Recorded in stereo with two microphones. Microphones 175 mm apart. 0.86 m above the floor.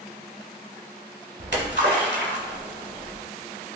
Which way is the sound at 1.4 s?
80° right.